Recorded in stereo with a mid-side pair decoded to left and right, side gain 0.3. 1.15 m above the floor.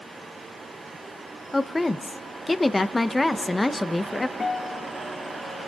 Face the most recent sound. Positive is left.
turn(degrees=50)